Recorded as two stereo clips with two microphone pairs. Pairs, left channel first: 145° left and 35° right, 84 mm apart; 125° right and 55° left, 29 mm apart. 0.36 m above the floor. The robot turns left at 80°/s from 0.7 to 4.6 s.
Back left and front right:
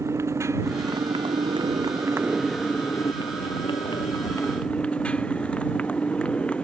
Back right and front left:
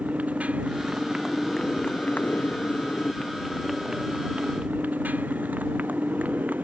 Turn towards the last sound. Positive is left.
turn(degrees=65)